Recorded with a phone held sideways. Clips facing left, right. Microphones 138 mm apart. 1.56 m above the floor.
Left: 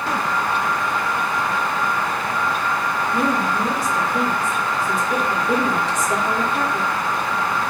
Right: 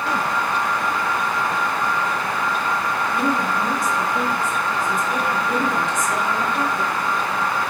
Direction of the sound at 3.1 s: 35° left (ahead or behind).